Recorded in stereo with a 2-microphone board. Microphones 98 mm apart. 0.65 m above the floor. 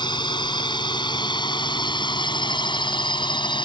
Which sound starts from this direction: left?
A drone, at 0.0 s.